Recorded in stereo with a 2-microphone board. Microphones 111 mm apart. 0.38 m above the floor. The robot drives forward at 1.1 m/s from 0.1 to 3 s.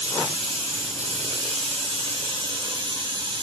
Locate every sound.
0.0 s running water: 65° right (ahead or behind), 2.5 m; by 3.4 s 50° right (ahead or behind), 3 m